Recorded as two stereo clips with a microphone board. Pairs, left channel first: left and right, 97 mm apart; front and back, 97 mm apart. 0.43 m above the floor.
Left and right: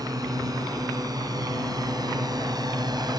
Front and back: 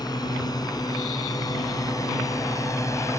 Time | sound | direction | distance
0.0 | a drone | 45° right | ?